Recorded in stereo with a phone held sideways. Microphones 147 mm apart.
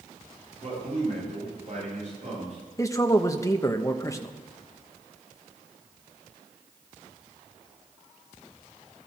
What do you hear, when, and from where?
0.6 s a man speaking: 55° right (ahead or behind), 8.5 m
2.8 s a man speaking: 20° left (ahead or behind), 1.1 m